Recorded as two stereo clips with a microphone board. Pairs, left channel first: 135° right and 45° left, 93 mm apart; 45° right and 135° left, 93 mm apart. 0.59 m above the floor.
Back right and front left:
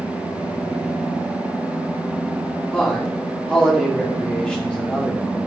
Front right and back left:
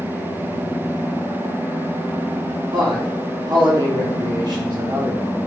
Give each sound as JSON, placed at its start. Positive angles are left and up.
{"t": 2.7, "sound": "a man speaking", "azimuth_deg": 150, "distance_m": 1.0}